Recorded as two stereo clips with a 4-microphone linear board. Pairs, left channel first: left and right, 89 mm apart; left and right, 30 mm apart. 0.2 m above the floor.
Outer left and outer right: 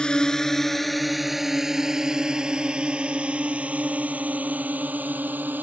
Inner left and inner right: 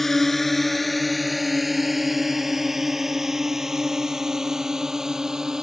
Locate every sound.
0.0 s a drone: 10° left (ahead or behind); by 5.6 s 20° right (ahead or behind)